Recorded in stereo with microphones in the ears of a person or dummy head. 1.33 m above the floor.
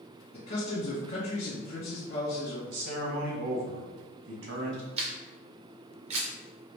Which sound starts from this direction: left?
A man speaking, at 0.3 s.